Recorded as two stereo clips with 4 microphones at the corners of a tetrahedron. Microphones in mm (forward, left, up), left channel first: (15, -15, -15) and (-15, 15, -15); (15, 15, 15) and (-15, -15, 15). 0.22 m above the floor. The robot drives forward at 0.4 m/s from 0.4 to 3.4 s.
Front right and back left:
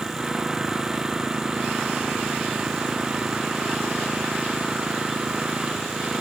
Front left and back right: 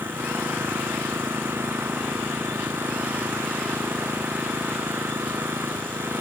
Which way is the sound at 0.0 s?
150° right.